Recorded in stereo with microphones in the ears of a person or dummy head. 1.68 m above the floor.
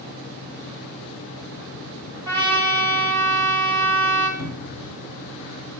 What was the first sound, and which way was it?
A trumpet, 15° left (ahead or behind).